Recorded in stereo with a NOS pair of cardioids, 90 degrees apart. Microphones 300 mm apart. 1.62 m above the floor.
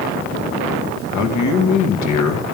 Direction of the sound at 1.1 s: 65° left.